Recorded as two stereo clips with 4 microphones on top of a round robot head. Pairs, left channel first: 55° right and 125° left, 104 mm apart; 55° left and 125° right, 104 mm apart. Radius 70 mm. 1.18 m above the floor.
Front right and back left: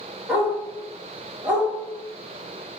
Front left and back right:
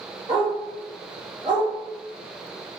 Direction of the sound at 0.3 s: 170° right.